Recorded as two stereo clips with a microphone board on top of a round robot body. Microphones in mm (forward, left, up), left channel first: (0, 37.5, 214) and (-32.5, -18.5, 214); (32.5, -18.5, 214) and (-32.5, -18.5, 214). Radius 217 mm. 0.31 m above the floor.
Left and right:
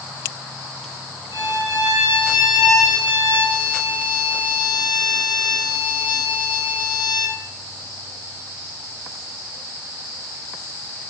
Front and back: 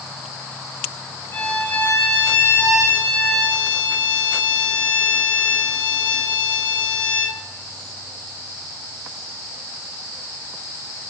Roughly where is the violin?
Ahead left.